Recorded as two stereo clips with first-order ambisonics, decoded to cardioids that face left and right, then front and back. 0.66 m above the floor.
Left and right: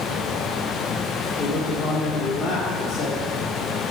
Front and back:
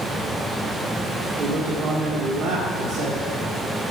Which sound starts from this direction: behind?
A man speaking, at 1.4 s.